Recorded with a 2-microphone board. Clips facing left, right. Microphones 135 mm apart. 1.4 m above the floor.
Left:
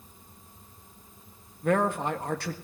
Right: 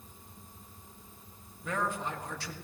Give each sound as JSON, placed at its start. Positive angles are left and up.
{"t": 1.6, "sound": "a man speaking", "side_deg": 60, "distance_m": 1.6}